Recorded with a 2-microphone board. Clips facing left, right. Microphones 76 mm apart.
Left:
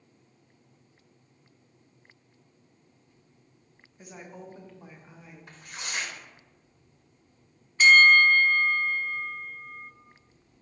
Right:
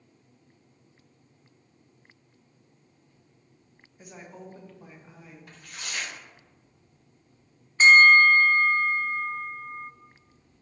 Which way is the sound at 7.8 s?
30° right (ahead or behind).